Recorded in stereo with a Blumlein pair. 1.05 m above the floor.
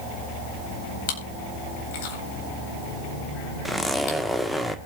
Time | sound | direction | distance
1.1 | chewing | 50° left | 4.5 m
3.6 | a zipper | straight ahead | 1.2 m